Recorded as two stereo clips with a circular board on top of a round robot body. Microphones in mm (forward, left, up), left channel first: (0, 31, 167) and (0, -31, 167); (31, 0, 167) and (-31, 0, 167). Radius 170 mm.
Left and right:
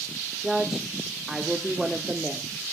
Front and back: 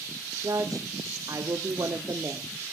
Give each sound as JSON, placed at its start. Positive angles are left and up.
{"t": 0.4, "sound": "a woman speaking", "azimuth_deg": -175, "distance_m": 1.5}